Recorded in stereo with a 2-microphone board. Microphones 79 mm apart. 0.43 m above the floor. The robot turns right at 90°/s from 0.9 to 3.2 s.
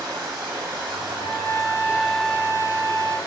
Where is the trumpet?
80° left, 1.6 m; by 3.2 s 90° right, 1.6 m.